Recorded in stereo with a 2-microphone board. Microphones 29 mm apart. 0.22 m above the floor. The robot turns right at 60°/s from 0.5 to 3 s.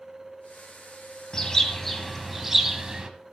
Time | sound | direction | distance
1.3 | a bird | 130° left | 1.3 m